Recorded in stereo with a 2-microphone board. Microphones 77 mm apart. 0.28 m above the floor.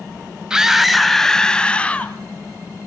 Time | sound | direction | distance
0.5 | a scream | 10° right (ahead or behind) | 1.5 m